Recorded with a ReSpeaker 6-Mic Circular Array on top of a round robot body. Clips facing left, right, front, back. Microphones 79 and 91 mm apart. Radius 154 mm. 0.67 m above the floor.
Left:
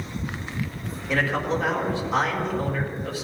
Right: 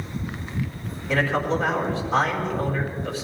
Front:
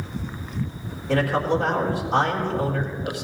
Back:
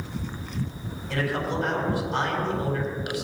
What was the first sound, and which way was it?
A man speaking, straight ahead.